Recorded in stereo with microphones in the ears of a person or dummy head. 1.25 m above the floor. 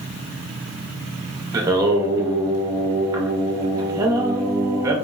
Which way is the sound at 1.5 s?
20° right (ahead or behind).